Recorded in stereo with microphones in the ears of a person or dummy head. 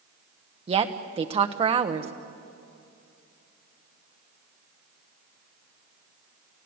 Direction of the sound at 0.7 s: 25° right (ahead or behind).